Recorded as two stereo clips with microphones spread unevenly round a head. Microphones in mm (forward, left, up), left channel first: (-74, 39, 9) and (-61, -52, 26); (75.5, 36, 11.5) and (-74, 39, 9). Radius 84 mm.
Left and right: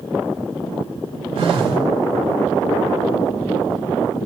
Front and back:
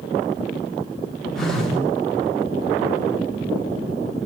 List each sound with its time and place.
1.4 s a phone buzzing: 90° right, 3 m